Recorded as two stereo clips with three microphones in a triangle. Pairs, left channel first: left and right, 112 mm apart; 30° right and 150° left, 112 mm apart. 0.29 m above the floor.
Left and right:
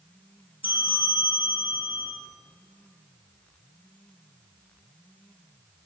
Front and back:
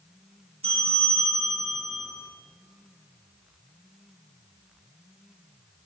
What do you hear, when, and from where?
0.6 s a bell: 125° left, 3 m